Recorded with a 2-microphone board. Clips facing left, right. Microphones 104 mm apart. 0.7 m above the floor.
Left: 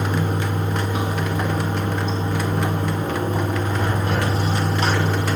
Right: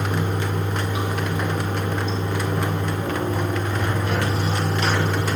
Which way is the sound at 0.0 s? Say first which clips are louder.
Left 2 dB; 40° left (ahead or behind).